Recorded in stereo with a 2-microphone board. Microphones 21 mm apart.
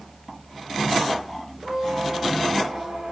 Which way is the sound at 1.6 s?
60° right (ahead or behind).